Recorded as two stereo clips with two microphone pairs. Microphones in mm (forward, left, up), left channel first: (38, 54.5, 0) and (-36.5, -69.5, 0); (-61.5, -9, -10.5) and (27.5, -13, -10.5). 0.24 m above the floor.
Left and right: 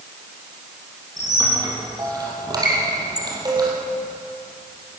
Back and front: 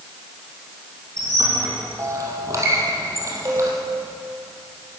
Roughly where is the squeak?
Ahead right.